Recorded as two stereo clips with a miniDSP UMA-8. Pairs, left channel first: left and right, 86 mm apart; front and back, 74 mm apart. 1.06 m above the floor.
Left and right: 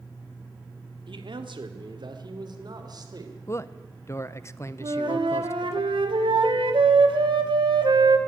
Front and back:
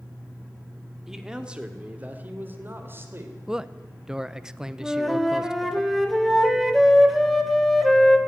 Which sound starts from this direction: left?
A man speaking, at 3.5 s.